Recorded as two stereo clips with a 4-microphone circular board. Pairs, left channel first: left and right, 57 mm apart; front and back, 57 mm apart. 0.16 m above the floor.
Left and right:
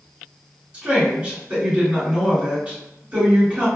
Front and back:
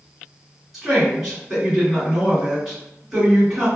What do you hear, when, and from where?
0.7 s a woman speaking: 100° right, 1.6 m